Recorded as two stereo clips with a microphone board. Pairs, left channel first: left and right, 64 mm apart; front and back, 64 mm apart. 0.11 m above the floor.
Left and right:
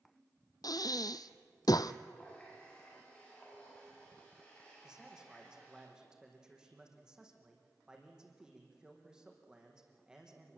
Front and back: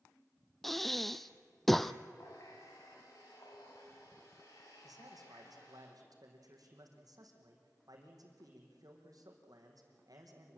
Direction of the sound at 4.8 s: 170° right.